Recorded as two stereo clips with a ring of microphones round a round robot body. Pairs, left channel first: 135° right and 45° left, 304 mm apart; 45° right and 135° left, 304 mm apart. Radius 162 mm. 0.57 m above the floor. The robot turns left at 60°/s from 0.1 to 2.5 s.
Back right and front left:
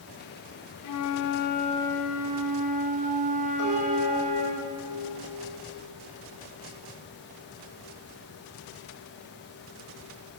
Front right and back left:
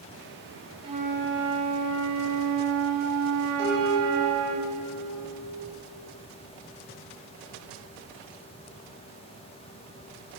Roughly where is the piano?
Left.